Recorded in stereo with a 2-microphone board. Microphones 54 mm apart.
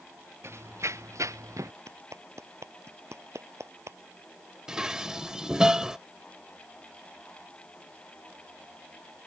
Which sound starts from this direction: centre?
Dishes clattering, at 4.7 s.